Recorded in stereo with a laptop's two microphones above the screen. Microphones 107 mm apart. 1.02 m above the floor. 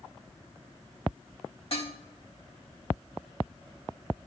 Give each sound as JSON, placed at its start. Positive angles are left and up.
{"t": 1.7, "sound": "dishes clattering", "side_deg": 55, "distance_m": 1.8}